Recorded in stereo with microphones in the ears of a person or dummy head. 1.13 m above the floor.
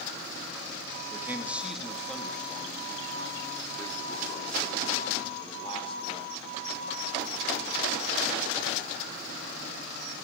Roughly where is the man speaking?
Centre.